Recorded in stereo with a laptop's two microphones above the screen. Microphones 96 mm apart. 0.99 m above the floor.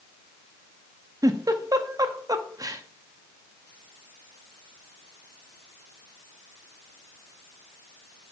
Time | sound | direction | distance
1.2 | a giggle | 40° right (ahead or behind) | 0.8 m